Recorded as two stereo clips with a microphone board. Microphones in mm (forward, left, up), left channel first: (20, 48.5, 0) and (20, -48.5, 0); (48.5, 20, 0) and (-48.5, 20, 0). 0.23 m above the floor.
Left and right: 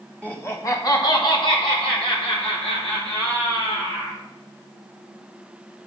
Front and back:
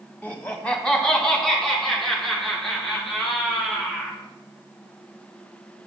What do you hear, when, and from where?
0.2 s laughter: 45° left, 1.6 m; by 4.2 s 90° left, 6.5 m